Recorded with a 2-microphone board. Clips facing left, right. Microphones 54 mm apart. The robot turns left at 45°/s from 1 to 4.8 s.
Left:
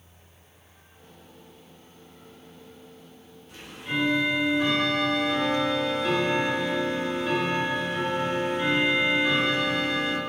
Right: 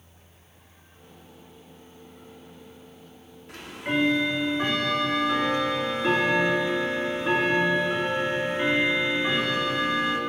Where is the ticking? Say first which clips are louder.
Right 3 dB; 90° right, 1.9 m; by 10.2 s 150° right, 1.9 m.